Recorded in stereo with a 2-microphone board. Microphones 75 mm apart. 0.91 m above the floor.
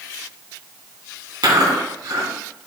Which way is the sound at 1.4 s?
60° right (ahead or behind).